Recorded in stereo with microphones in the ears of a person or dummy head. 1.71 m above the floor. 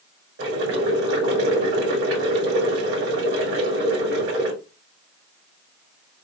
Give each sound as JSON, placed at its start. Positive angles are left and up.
{"t": 0.4, "sound": "boiling", "side_deg": -70, "distance_m": 2.0}